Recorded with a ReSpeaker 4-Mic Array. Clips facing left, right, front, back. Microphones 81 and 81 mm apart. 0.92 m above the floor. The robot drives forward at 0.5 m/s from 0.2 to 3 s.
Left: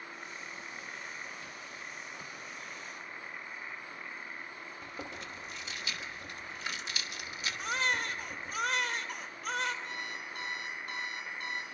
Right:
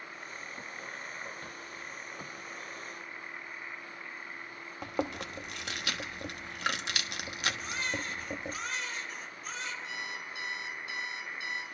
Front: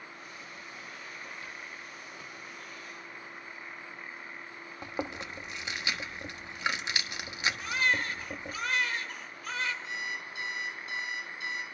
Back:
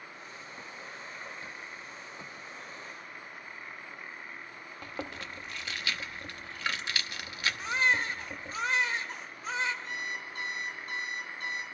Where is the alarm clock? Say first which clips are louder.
Right 1 dB, even; 135° left, 5.5 m.